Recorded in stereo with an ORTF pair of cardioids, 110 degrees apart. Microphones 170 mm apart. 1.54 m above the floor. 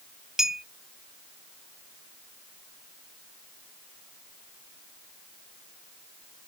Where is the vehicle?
I don't hear a vehicle.